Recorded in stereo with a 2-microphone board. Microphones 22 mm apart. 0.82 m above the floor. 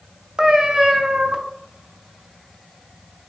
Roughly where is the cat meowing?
Right.